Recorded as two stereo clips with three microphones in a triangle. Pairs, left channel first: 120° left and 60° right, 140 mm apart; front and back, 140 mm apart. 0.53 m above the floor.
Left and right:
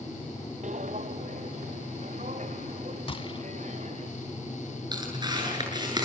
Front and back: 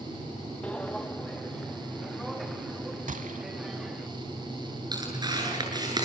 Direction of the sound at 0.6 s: 80° right.